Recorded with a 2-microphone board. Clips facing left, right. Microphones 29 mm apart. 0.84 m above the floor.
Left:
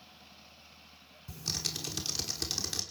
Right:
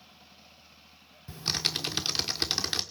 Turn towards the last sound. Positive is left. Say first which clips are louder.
# right 6 dB
turn(degrees=-45)  # may be behind; listen again after turning